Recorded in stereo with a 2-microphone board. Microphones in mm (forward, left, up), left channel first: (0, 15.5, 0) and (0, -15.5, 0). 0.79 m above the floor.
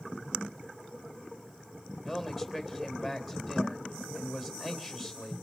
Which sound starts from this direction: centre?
A man speaking, at 2.0 s.